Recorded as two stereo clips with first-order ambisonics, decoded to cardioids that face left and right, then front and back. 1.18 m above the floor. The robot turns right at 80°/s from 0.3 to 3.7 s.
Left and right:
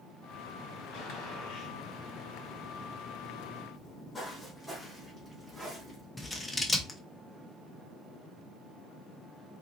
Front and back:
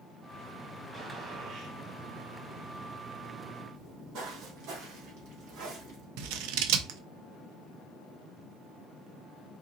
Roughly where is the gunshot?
Left.